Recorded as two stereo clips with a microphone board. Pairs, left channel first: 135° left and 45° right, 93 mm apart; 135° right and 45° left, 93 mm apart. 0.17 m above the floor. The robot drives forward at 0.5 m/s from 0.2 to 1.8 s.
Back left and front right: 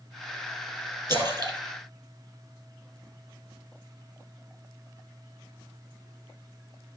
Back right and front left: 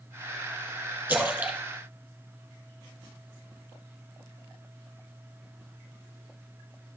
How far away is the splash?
About 2.5 m.